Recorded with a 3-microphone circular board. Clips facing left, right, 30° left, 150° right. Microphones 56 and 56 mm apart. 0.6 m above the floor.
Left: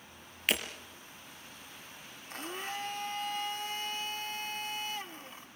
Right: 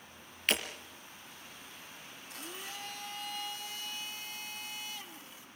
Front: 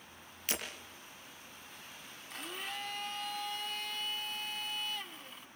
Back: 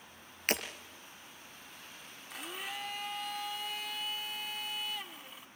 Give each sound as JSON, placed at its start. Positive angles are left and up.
{"t": 0.5, "sound": "breaking glass", "azimuth_deg": 175, "distance_m": 3.5}
{"t": 2.3, "sound": "a blender", "azimuth_deg": 125, "distance_m": 1.3}